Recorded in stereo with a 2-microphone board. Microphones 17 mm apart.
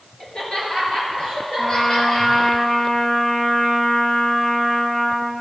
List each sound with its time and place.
0.2 s laughter: 55° left (ahead or behind), 4 m; by 2.6 s 50° left (ahead or behind), 6 m
1.6 s a trumpet: 40° left (ahead or behind), 3.5 m